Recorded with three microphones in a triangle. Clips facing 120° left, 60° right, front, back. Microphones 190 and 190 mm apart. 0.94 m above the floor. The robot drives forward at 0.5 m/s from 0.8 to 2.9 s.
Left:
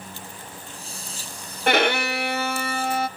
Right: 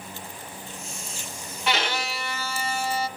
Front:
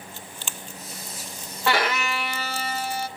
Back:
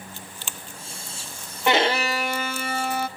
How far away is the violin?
About 0.5 m.